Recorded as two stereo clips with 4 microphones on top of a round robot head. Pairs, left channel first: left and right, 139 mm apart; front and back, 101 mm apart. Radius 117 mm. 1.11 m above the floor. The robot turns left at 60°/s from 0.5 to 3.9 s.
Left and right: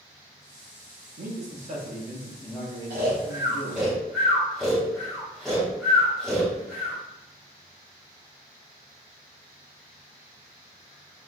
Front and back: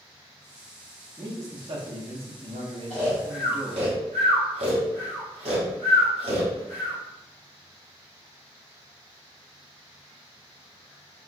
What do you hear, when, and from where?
1.2 s a man speaking: 105° right, 1.1 m; by 3.9 s 95° left, 1.1 m
2.9 s snoring: 120° right, 1.0 m; by 7.0 s straight behind, 1.0 m